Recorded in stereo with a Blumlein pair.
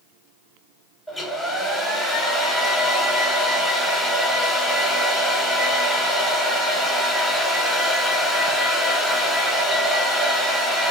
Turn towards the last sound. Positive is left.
turn(degrees=5)